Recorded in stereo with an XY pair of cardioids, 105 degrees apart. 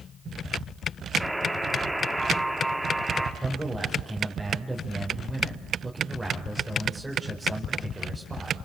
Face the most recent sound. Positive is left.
turn(degrees=-5)